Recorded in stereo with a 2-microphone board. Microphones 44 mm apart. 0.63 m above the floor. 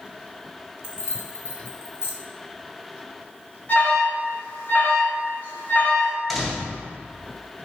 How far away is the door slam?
About 2 m.